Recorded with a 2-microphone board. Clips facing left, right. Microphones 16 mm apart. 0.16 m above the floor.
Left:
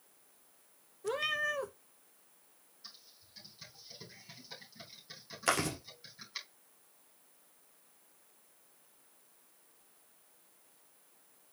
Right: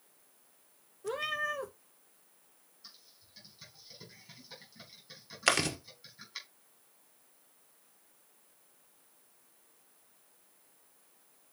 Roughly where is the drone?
I don't hear a drone.